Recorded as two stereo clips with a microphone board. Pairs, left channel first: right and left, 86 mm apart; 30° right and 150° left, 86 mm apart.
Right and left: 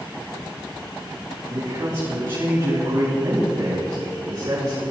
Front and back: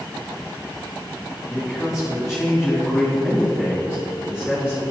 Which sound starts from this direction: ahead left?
A man speaking, at 1.5 s.